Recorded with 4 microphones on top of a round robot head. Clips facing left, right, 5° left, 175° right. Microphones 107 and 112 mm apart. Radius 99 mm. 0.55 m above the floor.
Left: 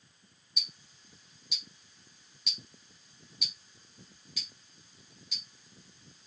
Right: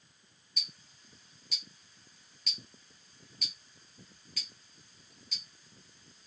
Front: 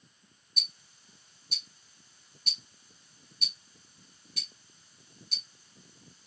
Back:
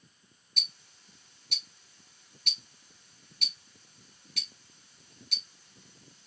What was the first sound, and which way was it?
Ticking, 165° left.